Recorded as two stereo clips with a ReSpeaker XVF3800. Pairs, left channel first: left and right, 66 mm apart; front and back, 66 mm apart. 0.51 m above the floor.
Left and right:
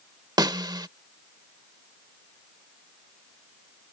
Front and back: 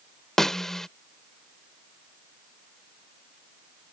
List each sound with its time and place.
0.4 s a snare drum: 85° right